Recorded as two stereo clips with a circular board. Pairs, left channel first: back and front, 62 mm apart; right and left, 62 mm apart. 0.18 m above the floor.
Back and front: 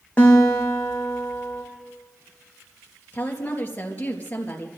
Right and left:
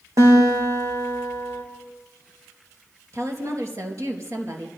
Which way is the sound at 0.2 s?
110° left.